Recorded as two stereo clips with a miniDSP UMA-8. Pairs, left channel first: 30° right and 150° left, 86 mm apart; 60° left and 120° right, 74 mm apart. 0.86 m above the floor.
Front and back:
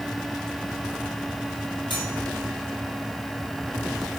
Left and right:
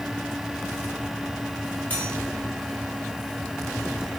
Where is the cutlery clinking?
5° right, 6.5 m.